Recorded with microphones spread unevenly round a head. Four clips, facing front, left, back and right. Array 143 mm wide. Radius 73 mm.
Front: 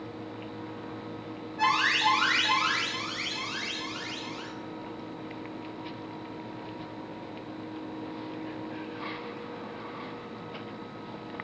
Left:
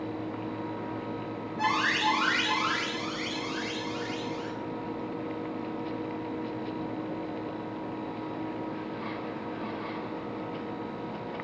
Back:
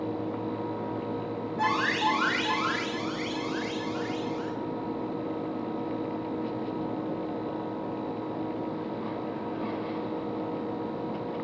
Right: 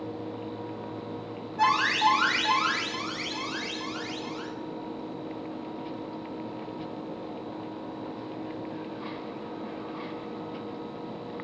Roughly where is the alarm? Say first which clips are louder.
Right 5 dB, front 1 dB; right.